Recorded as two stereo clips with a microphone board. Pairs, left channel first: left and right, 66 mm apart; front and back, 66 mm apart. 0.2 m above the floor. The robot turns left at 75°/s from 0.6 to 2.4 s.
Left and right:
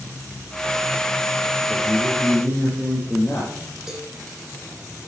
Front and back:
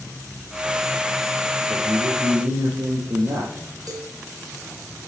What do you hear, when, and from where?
1.7 s a man speaking: 135° right, 5 m; by 3.6 s 175° left, 5 m
3.9 s a cowbell: 175° right, 3.5 m